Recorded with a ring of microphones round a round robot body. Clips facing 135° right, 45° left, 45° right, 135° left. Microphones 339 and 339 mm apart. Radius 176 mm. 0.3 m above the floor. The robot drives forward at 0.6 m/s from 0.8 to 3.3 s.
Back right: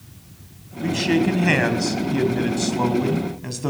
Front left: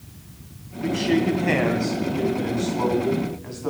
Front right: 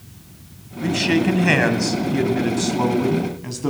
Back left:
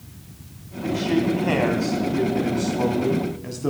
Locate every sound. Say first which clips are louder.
0.8 s a man speaking: back right 1 dB, front right 2 dB; 70° right, 2 m; by 3.7 s 115° right, 2 m